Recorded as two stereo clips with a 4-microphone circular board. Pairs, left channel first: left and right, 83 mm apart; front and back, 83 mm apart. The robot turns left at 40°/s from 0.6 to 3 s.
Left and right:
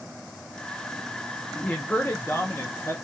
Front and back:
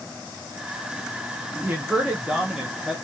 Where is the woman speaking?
145° left, 0.7 m; by 3.0 s 90° left, 0.7 m.